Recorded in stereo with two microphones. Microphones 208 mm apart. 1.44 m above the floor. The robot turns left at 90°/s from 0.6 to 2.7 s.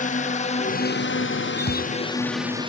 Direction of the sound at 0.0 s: 35° left (ahead or behind).